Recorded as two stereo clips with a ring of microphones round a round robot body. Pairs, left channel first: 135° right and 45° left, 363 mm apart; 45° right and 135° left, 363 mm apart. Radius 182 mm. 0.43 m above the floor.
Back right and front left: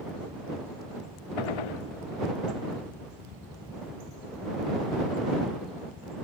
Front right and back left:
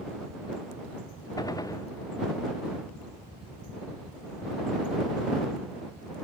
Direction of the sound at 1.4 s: 125° right.